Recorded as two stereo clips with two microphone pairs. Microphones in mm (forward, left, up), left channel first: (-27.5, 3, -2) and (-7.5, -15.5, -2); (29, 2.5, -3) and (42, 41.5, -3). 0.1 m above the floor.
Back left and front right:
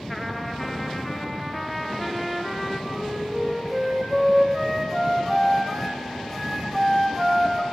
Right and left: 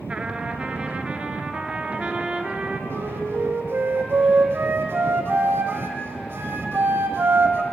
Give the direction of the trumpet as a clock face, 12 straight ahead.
10 o'clock.